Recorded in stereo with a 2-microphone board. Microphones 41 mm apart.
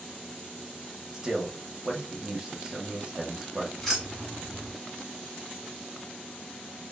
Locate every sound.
1.1 s a man speaking: 15° right (ahead or behind), 0.9 m
3.8 s keys jangling: 10° left (ahead or behind), 2 m